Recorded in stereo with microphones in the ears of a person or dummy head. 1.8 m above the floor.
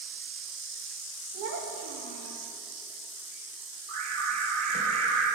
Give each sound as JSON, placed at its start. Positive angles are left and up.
{"t": 1.3, "sound": "a child speaking", "side_deg": -60, "distance_m": 1.7}
{"t": 3.9, "sound": "an alarm", "side_deg": -40, "distance_m": 1.9}